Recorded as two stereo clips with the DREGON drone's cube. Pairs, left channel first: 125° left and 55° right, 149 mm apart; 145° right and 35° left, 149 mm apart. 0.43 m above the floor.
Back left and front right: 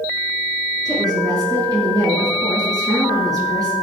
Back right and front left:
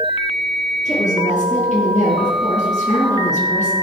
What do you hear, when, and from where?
0.8 s a woman speaking: 120° right, 6.5 m